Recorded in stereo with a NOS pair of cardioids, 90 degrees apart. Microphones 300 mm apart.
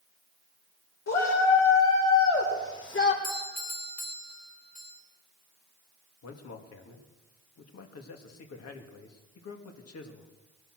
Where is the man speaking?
55° left, 2.5 m.